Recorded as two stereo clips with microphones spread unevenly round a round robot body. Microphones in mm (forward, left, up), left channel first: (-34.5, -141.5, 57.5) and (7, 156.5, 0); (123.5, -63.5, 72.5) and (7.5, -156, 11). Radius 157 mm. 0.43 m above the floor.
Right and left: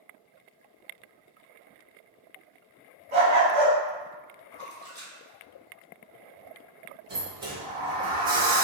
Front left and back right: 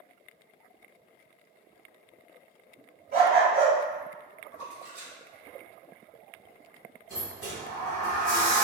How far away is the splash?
About 1.8 m.